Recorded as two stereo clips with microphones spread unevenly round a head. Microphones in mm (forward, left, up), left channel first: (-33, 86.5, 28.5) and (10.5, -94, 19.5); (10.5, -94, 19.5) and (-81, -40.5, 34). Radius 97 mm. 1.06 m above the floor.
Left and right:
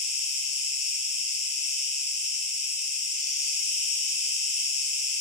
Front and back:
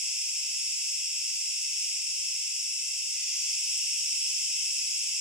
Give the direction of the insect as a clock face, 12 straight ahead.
9 o'clock.